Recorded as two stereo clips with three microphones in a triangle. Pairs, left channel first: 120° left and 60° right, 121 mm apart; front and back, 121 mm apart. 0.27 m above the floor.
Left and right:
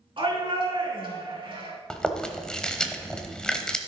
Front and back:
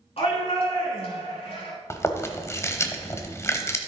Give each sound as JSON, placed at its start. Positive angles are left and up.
{"t": 0.2, "sound": "a shout", "azimuth_deg": -25, "distance_m": 4.0}
{"t": 1.9, "sound": "chewing", "azimuth_deg": 40, "distance_m": 1.0}